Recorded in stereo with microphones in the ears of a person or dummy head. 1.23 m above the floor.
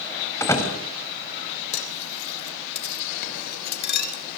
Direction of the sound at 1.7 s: 60° left (ahead or behind).